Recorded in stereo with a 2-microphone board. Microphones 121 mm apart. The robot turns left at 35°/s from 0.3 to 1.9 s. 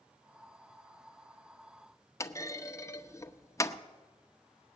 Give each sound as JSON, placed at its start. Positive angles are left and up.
{"t": 2.2, "sound": "a clunk", "side_deg": 25, "distance_m": 0.8}